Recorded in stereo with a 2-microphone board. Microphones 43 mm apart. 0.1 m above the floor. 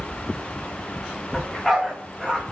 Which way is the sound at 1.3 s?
10° left (ahead or behind).